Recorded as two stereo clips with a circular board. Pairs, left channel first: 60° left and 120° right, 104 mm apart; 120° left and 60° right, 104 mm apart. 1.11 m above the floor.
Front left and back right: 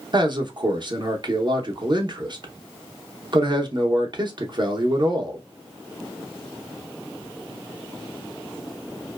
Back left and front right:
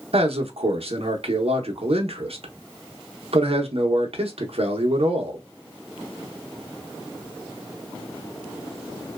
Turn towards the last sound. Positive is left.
turn(degrees=-80)